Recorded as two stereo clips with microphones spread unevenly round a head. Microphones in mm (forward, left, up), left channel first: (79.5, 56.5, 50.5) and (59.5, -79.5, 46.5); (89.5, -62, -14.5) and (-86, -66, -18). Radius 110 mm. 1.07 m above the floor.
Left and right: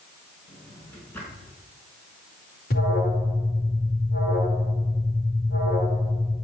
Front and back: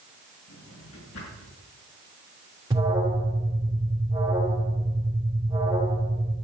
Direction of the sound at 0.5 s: 5° left.